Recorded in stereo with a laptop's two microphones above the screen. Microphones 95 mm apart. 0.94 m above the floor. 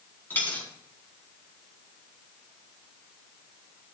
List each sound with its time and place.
0.3 s a dropped coin: 20° left (ahead or behind), 4 m